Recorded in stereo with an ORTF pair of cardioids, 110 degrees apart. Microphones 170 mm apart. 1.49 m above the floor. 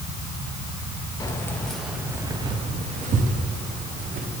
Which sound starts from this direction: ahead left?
Keys jangling, at 1.2 s.